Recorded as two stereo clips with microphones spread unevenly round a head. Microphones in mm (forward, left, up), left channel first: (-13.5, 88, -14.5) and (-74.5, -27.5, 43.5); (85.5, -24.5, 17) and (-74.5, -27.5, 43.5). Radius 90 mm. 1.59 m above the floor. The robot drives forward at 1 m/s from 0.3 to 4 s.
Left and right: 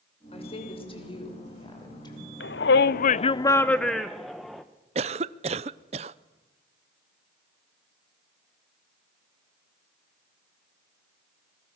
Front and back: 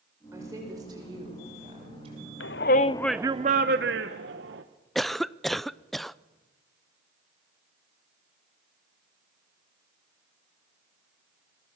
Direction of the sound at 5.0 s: 90° right.